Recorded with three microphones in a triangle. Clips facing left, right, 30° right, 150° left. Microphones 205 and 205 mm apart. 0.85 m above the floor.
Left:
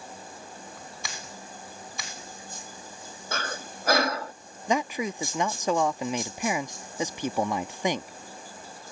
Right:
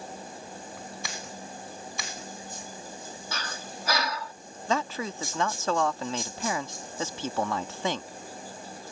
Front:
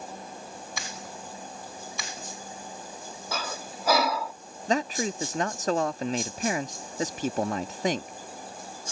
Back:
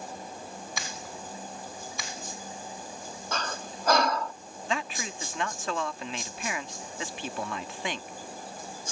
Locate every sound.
3.3 s breathing: 55° left
4.7 s a man speaking: 15° left